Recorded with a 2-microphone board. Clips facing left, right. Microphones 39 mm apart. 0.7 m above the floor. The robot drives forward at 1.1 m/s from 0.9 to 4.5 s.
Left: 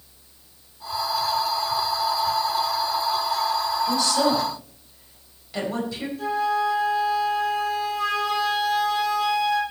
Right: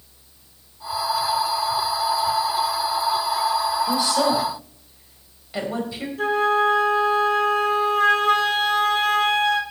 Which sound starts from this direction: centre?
A woman speaking, at 3.9 s.